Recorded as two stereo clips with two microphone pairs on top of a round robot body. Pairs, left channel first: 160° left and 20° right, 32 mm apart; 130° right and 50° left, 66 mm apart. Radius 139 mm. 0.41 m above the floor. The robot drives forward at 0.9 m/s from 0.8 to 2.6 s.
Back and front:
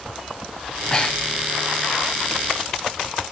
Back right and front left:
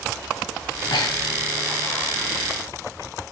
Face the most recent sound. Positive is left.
turn(degrees=-160)